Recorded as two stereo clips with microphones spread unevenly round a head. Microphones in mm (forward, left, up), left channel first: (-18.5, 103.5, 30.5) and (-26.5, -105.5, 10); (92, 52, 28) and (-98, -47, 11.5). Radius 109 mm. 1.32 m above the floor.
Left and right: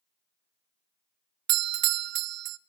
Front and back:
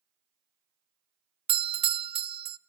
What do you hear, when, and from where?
1.5 s a doorbell: 95° right, 0.5 m